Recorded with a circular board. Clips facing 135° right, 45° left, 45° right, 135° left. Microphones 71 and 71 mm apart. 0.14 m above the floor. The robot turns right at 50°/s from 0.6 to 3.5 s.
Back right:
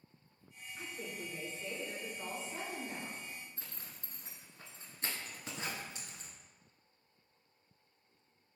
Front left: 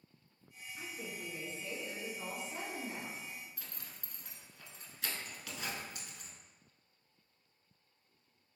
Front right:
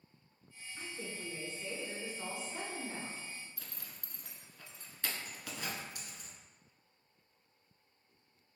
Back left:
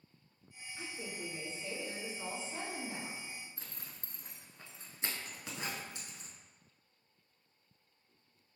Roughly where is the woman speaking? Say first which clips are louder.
Back right 1 dB, back left 1 dB; right.